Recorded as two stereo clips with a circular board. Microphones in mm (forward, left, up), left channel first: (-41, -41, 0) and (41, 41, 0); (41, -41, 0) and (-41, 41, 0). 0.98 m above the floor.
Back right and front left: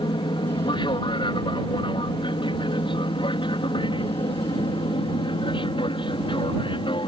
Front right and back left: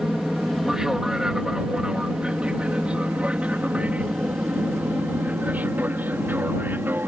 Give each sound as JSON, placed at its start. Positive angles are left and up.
{"t": 0.0, "sound": "an aircraft", "azimuth_deg": -140}